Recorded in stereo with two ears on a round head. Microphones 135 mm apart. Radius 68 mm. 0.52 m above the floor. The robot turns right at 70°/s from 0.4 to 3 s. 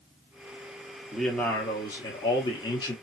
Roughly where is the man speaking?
Ahead.